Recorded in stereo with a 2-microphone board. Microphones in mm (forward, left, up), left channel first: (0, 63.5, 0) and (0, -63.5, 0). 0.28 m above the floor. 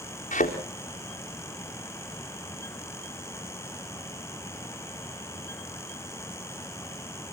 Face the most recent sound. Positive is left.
turn(degrees=85)